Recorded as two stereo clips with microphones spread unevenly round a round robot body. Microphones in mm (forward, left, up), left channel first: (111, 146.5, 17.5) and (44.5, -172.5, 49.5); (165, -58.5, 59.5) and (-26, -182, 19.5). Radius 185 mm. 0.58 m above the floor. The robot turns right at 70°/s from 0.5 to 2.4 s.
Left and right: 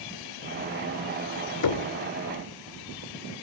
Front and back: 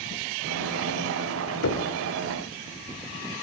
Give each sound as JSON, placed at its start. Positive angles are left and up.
{"t": 1.6, "sound": "knocking", "azimuth_deg": 65, "distance_m": 2.0}